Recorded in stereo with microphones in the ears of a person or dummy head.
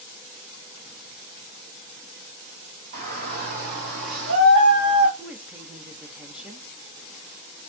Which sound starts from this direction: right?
A shout, at 2.9 s.